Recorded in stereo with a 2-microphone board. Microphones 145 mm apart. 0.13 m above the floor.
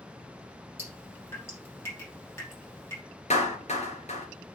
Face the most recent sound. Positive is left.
turn(degrees=50)  # may be behind; listen again after turning